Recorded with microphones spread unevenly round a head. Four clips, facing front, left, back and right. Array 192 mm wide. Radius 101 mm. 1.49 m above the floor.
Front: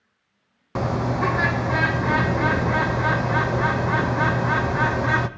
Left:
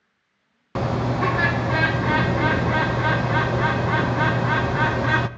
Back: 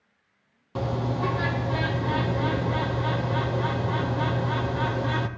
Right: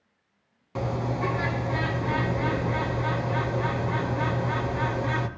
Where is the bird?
60° left, 0.7 m.